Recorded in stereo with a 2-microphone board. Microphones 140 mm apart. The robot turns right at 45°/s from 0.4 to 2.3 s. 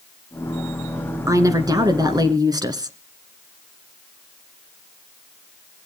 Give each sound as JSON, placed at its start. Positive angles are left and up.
{"t": 1.3, "sound": "a woman speaking", "side_deg": -25, "distance_m": 1.3}